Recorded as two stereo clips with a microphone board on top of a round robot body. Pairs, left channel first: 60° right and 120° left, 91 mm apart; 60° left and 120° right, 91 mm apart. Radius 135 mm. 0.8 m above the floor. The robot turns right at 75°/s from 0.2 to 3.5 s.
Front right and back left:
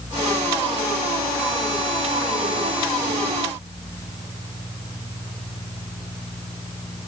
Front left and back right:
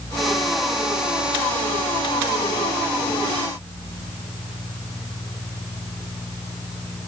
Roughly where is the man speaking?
No man speaking in this recording.